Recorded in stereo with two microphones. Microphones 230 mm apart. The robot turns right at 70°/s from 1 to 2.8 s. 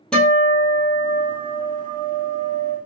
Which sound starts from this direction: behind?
A guitar, at 0.1 s.